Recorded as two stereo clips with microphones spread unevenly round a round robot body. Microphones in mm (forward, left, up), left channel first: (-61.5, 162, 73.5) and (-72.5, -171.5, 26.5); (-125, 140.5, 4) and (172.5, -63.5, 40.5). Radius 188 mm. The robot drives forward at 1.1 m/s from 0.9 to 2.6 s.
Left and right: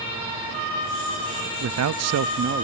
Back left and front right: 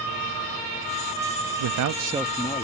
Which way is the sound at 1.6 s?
55° right.